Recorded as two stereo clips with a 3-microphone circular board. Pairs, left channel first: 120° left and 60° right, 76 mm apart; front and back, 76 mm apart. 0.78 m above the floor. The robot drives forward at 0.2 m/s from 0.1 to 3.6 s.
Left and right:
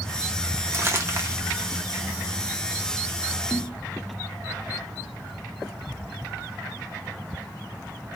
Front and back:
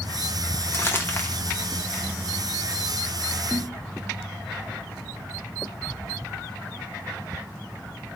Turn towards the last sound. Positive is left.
turn(degrees=135)